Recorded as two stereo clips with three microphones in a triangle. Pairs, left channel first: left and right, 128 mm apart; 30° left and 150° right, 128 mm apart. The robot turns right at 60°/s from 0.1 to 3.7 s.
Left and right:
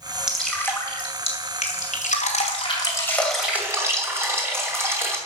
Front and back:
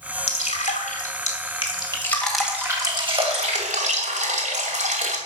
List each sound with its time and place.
0.3 s dripping: 5° right, 2.5 m; by 5.2 s 160° right, 2.5 m